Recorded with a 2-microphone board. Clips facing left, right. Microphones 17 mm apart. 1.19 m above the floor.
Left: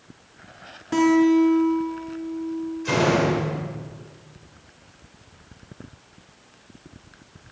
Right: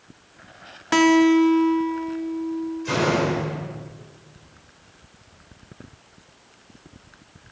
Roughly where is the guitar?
Right.